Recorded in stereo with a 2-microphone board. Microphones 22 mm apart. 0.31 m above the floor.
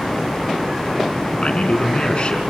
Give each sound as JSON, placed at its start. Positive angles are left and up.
{"t": 1.4, "sound": "a man speaking", "side_deg": 50, "distance_m": 3.0}